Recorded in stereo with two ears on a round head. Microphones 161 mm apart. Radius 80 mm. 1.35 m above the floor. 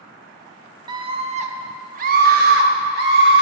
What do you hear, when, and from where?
0.9 s a scream: 25° right (ahead or behind), 0.7 m; by 3.4 s 65° right (ahead or behind), 1.8 m